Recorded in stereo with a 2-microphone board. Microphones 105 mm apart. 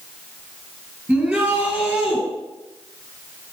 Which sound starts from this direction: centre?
A shout, at 1.1 s.